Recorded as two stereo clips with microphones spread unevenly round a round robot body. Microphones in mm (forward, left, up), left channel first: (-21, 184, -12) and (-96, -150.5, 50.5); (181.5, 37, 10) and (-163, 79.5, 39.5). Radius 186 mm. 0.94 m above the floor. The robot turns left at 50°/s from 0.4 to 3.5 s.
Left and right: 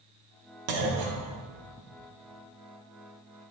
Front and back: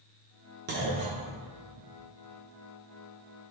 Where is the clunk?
120° right, 1.1 m; by 1.9 s straight behind, 1.1 m.